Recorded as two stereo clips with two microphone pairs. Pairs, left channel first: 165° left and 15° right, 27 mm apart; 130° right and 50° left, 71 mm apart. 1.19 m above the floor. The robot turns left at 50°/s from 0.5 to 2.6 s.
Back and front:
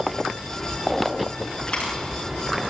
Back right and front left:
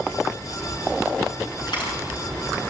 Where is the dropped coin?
140° right, 8.5 m; by 2.0 s 155° right, 8.5 m.